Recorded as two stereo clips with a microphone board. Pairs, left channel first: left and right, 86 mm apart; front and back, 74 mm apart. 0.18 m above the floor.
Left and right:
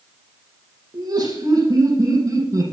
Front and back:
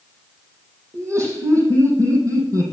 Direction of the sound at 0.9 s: 135° right.